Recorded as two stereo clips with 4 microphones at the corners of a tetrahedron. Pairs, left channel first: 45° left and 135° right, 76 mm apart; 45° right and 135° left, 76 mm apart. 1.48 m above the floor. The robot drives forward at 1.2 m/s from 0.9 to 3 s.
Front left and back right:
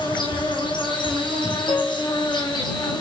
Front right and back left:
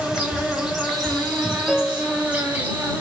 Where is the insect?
50° left, 6.5 m; by 3.0 s 70° left, 5.5 m.